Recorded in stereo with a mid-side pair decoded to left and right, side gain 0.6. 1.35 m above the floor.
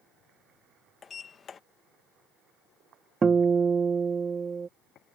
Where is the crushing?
No crushing in this recording.